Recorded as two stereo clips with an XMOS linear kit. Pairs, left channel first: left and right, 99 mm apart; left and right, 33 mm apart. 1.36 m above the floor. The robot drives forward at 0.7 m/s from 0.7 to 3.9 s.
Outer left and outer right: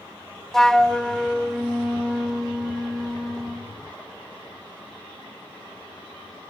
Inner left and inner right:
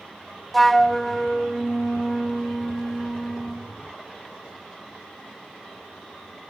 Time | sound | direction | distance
0.5 | a flute | 5° left (ahead or behind) | 0.9 m